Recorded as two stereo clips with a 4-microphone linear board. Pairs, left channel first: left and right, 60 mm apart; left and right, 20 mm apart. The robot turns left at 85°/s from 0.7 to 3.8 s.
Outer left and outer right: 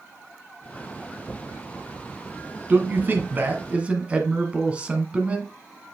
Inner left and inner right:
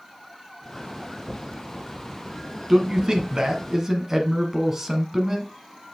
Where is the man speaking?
45° right, 1.4 m; by 5.5 s 140° right, 1.4 m.